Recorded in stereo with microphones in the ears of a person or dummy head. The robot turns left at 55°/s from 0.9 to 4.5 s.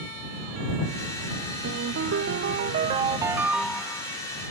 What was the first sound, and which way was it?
A ringtone, 65° right.